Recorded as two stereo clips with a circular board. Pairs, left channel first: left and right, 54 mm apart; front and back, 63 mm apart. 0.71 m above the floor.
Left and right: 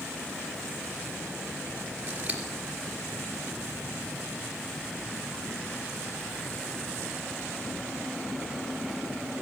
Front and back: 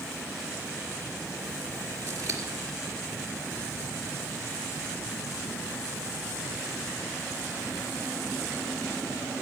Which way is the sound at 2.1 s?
155° right.